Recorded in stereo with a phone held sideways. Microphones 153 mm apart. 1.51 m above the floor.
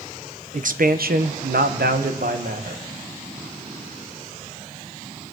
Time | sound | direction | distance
0.5 | a man speaking | 55° right (ahead or behind) | 0.9 m